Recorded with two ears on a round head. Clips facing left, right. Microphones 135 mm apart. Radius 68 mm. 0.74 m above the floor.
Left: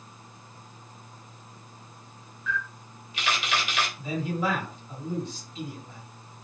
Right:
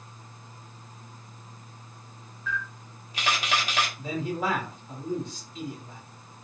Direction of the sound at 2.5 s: 35° right (ahead or behind).